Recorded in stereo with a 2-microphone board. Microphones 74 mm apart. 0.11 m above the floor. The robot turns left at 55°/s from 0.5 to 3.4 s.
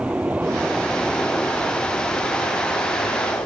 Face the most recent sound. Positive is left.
turn(degrees=55)  # may be behind; listen again after turning